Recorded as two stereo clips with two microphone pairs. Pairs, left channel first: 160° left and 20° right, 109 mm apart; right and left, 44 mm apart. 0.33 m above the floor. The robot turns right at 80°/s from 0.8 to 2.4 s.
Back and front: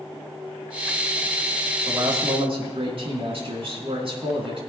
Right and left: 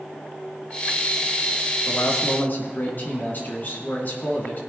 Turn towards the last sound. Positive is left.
turn(degrees=-45)